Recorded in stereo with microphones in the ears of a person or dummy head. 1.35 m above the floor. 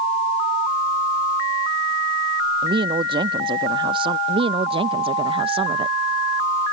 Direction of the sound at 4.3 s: 30° right (ahead or behind).